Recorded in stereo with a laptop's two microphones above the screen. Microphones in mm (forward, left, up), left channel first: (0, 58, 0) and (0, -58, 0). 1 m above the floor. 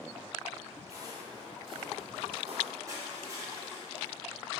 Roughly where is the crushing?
Right.